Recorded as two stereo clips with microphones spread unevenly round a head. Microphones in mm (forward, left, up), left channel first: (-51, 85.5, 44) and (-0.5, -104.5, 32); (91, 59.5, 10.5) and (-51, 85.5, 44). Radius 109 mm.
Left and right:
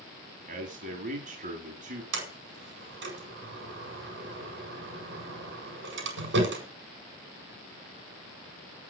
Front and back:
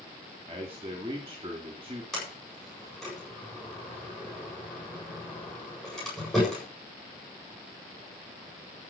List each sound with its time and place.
0.5 s a man speaking: 120° right, 4 m
2.1 s a sliding door: 100° right, 7 m